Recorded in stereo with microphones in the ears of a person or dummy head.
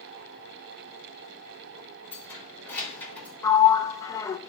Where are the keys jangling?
10° left (ahead or behind), 3.5 m; by 3.3 s 5° left (ahead or behind), 3 m.